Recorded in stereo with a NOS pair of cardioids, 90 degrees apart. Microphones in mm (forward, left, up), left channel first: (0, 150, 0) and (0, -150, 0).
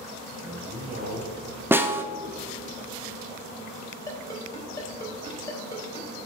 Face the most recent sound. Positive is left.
turn(degrees=10)